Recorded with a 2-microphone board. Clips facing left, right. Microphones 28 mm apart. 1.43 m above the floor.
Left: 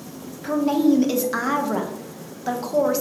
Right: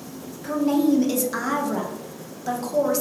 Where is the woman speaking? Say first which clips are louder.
Left 2 dB; 15° left (ahead or behind), 1.0 m.